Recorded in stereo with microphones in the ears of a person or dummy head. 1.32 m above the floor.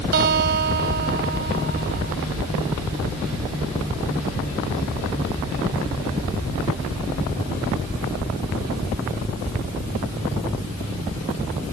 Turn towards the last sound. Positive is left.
turn(degrees=-55)  # may be behind; listen again after turning